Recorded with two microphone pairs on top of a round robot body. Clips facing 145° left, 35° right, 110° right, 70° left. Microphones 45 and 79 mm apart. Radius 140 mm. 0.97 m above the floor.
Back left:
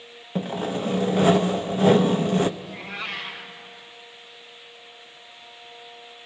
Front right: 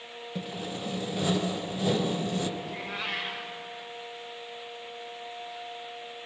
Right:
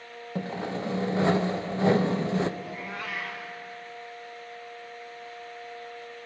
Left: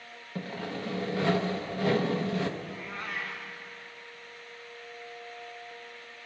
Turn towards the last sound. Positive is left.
turn(degrees=-110)